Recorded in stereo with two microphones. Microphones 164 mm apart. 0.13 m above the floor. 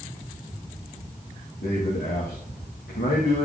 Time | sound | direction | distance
1.6 | a man speaking | 80° left | 7.5 m